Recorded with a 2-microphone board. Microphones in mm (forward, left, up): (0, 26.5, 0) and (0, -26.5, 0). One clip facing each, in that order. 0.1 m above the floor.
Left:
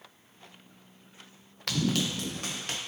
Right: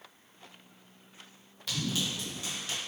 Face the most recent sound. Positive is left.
turn(degrees=60)  # may be behind; listen again after turning